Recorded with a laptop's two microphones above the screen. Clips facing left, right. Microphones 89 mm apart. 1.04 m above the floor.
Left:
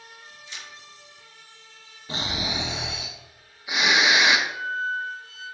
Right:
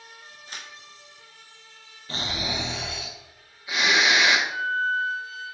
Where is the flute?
35° left (ahead or behind), 0.8 m.